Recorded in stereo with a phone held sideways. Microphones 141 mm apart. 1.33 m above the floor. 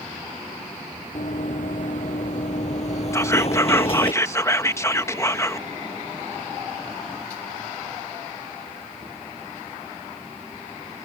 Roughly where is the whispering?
Centre.